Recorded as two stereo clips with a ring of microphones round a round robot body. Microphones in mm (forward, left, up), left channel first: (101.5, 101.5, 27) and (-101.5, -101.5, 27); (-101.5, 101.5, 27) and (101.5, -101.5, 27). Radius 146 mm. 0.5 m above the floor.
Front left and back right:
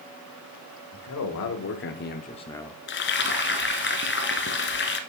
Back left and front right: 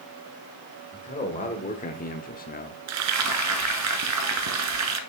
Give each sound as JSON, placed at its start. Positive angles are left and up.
{"t": 0.9, "sound": "a man speaking", "azimuth_deg": 70, "distance_m": 1.9}
{"t": 2.9, "sound": "frying", "azimuth_deg": -10, "distance_m": 1.3}